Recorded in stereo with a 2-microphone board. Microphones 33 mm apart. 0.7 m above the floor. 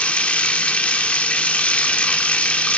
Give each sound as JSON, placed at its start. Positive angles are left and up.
{"t": 0.0, "sound": "running water", "side_deg": 45, "distance_m": 0.9}